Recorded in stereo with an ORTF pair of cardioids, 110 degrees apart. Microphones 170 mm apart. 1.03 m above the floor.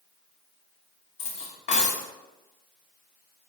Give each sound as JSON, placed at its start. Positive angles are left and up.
{"t": 1.2, "sound": "cutlery clinking", "azimuth_deg": 45, "distance_m": 1.0}